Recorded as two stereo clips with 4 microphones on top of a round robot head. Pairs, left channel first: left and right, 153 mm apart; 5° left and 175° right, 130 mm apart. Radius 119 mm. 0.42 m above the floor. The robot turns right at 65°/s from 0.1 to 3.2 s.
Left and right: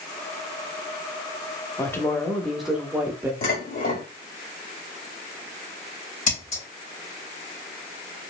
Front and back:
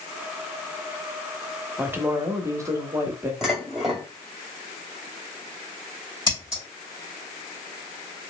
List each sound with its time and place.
1.8 s a woman speaking: 130° left, 0.8 m; by 3.3 s 140° right, 0.8 m
3.4 s dishes clattering: 95° left, 1.8 m
6.3 s scissors: 60° left, 1.9 m